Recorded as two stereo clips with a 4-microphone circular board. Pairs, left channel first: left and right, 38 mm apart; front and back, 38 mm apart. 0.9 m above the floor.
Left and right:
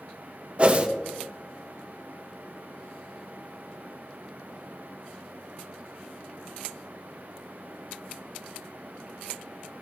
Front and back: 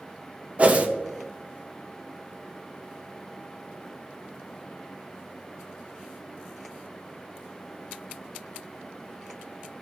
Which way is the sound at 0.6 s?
140° right.